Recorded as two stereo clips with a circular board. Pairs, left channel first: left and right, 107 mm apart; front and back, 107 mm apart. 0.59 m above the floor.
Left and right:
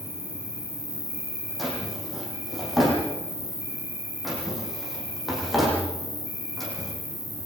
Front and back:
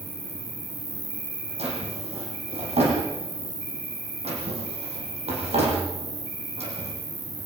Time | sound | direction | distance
0.0 | an insect | 75° left | 5.5 m
1.6 | a drawer | straight behind | 9 m